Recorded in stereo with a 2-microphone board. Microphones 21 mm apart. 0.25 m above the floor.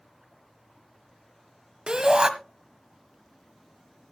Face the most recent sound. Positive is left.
turn(degrees=-40)  # may be behind; listen again after turning